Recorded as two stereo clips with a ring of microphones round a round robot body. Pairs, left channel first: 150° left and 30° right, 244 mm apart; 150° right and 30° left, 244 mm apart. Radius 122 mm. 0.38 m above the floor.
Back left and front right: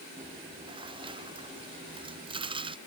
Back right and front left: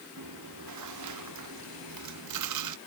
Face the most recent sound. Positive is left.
turn(degrees=40)